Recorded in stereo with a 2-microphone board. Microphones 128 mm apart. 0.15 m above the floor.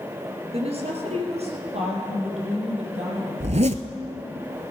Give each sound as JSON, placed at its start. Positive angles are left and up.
{"t": 0.5, "sound": "a woman speaking", "side_deg": -55, "distance_m": 2.5}
{"t": 3.4, "sound": "a zipper", "side_deg": -70, "distance_m": 0.6}